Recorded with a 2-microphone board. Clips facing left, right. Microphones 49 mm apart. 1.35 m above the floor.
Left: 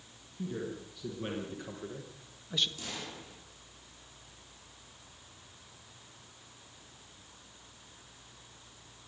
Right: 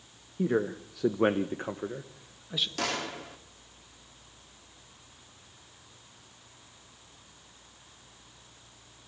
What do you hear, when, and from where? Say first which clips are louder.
0.4 s a man speaking: right 10 dB; 75° right (ahead or behind), 1.4 m; by 2.7 s 5° right (ahead or behind), 1.5 m
2.8 s a gunshot: right 10 dB; 85° right, 3 m